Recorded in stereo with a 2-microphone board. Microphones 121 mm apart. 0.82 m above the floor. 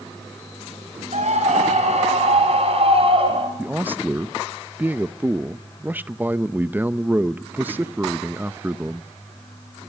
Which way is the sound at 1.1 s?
75° right (ahead or behind).